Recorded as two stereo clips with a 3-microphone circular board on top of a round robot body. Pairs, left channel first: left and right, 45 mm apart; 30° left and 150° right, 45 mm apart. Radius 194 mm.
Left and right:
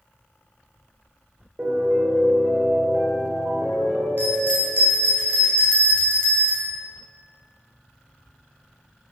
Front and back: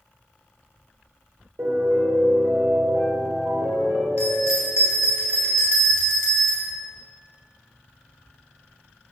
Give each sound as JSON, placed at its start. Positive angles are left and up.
{"t": 1.6, "sound": "a piano", "azimuth_deg": -150, "distance_m": 4.0}
{"t": 4.2, "sound": "a bell", "azimuth_deg": -130, "distance_m": 4.5}